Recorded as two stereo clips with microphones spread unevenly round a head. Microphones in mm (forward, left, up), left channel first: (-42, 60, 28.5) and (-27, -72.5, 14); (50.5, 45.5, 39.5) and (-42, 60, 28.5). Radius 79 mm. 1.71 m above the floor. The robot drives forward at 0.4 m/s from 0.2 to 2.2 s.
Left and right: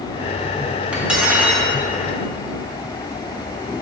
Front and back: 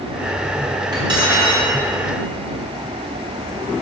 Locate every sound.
0.9 s cutlery clinking: 170° right, 1.1 m